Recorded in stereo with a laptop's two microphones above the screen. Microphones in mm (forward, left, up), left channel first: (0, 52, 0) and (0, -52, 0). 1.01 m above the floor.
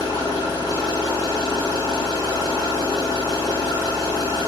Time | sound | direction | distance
0.0 | an engine running | 45° left (ahead or behind) | 3.5 m